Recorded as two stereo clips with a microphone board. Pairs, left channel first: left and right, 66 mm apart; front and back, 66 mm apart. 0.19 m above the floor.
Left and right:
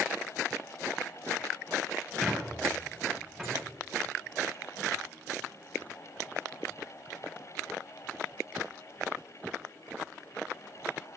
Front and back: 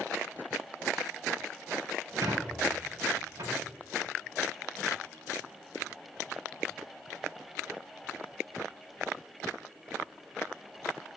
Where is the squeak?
Straight behind, 3.5 m.